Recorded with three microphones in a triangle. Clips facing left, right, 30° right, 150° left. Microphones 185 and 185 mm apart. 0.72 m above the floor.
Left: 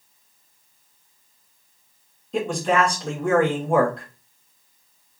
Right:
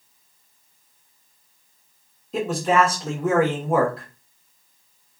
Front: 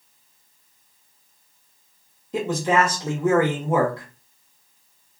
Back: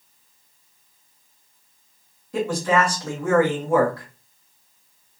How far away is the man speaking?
About 1.0 m.